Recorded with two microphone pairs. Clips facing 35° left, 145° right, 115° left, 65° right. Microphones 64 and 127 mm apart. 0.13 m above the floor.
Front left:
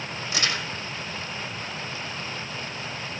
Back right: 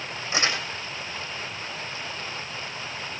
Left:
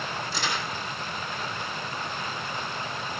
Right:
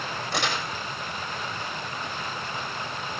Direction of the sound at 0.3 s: 80° right.